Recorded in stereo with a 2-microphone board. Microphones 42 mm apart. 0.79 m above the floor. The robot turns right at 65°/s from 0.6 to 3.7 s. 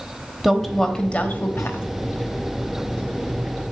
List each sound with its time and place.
0.4 s a woman speaking: 5° left, 1.0 m; by 1.8 s 85° left, 1.0 m